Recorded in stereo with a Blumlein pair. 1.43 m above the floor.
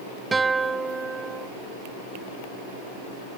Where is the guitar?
10° right.